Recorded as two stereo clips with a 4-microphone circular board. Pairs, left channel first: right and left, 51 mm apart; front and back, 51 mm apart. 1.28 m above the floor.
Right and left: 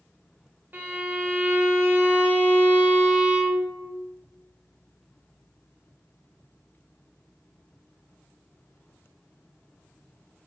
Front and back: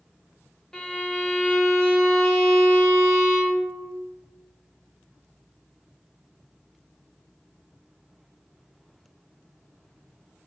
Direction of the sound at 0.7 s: 70° left.